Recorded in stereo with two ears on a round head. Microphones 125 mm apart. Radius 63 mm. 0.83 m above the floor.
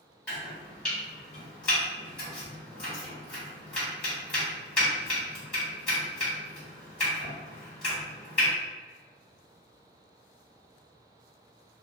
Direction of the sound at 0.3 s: 10° left (ahead or behind).